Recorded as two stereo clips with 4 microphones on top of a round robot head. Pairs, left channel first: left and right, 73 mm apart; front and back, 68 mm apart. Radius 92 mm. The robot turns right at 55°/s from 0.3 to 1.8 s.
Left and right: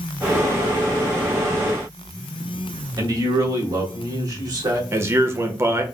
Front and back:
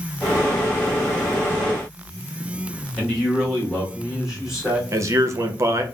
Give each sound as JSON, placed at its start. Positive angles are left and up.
{"t": 3.0, "sound": "a man speaking", "azimuth_deg": -95, "distance_m": 1.9}
{"t": 4.9, "sound": "a man speaking", "azimuth_deg": -140, "distance_m": 0.8}